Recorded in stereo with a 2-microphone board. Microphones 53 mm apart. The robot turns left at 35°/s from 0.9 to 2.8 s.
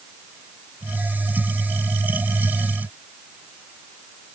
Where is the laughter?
No laughter in this recording.